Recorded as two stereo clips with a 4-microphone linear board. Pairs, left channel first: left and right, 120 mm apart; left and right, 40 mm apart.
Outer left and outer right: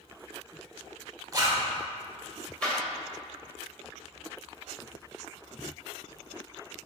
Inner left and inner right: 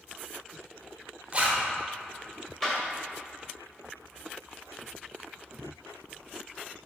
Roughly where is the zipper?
Right.